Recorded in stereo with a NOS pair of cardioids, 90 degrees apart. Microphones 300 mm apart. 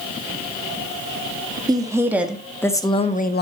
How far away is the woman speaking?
About 1.8 m.